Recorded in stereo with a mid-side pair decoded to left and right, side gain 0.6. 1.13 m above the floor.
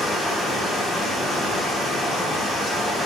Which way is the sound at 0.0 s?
10° left.